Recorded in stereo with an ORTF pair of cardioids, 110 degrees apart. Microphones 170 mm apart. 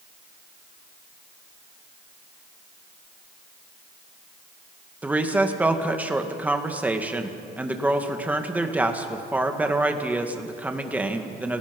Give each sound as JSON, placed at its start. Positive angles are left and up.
{"t": 5.0, "sound": "a woman speaking", "azimuth_deg": -10, "distance_m": 2.0}